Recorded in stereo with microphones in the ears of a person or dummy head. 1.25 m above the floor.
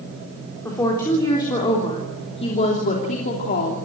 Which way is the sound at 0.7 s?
20° left (ahead or behind).